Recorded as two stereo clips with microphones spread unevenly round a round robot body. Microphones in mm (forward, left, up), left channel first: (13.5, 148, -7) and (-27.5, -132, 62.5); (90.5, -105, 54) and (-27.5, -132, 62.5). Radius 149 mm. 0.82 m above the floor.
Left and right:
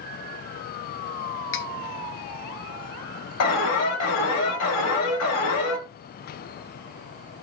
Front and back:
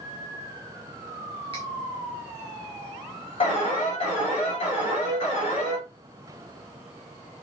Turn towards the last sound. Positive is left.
turn(degrees=65)